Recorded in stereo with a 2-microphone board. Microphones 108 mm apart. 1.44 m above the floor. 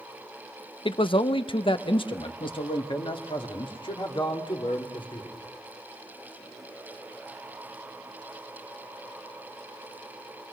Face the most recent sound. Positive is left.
turn(degrees=50)  # may be behind; listen again after turning